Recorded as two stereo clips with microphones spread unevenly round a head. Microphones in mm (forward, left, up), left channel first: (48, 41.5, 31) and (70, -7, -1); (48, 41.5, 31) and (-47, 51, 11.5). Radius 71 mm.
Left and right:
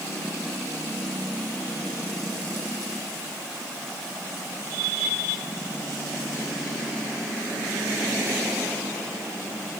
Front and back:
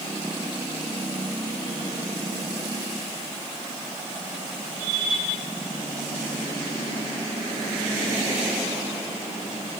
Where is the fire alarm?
I don't hear a fire alarm.